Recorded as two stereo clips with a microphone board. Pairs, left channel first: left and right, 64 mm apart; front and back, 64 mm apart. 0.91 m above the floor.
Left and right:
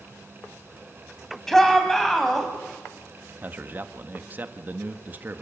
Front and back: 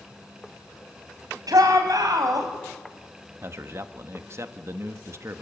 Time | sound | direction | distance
1.5 | a shout | 175° left | 5.5 m
3.4 | a man speaking | 145° right | 1.3 m